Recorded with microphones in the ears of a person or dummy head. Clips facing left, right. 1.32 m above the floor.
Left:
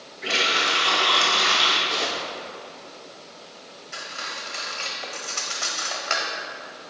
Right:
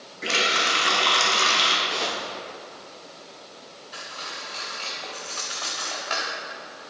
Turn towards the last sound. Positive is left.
turn(degrees=25)  # may be behind; listen again after turning